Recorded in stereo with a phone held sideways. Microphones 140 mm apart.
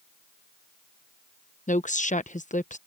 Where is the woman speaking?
65° left (ahead or behind).